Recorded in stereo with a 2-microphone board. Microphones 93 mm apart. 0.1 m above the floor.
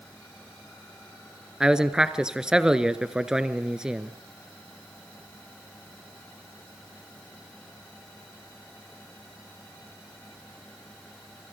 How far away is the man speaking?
About 1.2 m.